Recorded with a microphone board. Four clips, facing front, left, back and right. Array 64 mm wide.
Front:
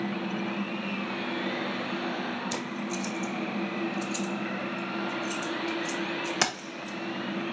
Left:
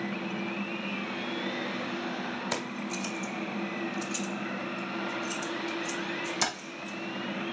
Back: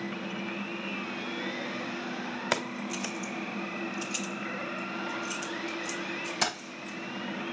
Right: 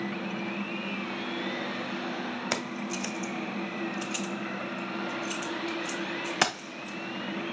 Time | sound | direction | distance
2.5 | keys jangling | 155° right | 1.4 m